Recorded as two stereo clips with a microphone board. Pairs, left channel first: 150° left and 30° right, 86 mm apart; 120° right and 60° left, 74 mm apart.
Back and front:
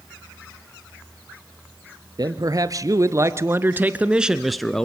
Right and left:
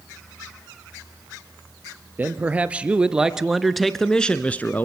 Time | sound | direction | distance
2.2 | a man speaking | 5° right | 1.8 m